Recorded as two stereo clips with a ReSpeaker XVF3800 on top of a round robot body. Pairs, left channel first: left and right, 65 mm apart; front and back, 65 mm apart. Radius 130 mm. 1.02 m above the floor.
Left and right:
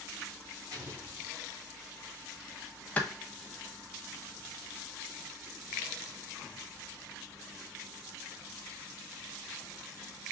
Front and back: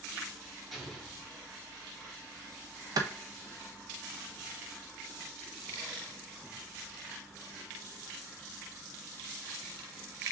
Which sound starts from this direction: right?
An explosion, at 0.7 s.